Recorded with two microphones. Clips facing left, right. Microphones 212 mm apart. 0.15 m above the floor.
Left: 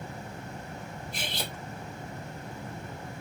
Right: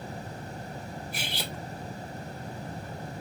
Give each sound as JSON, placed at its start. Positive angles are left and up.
{"t": 1.1, "sound": "cutlery clinking", "side_deg": -10, "distance_m": 1.2}